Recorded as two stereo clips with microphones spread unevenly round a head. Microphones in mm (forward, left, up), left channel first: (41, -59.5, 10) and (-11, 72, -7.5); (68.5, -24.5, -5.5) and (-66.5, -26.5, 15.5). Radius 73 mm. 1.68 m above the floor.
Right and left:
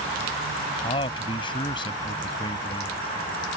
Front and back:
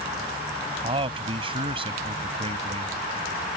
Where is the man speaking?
130° right.